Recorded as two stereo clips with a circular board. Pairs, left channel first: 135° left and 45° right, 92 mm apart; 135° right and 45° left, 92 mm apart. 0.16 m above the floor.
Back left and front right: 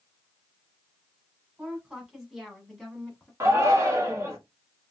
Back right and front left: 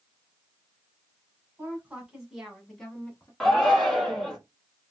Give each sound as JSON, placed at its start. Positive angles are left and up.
{"t": 1.6, "sound": "a woman speaking", "azimuth_deg": 20, "distance_m": 1.6}
{"t": 3.4, "sound": "a shout", "azimuth_deg": -50, "distance_m": 1.3}